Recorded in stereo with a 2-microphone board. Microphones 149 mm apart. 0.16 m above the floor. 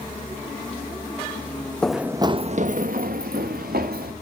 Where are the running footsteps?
5° left (ahead or behind), 0.6 m; by 4.1 s 85° right, 1.6 m.